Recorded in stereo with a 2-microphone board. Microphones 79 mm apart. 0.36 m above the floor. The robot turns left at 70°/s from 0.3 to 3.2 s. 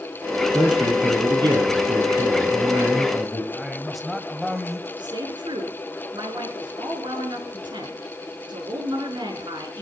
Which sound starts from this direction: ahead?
A man speaking, at 0.5 s.